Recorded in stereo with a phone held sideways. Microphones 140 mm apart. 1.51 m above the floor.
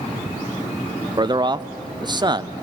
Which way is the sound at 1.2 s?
30° right (ahead or behind).